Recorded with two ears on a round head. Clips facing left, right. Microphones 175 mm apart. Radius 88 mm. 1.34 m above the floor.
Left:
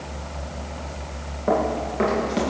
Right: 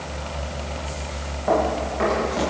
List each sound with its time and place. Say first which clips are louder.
1.5 s running footsteps: right 1 dB; 45° left (ahead or behind), 7.5 m